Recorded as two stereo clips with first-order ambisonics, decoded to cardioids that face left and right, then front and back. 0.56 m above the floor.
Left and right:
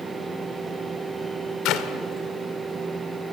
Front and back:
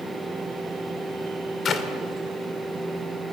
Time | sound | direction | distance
1.6 | a clap | 60° left | 1.7 m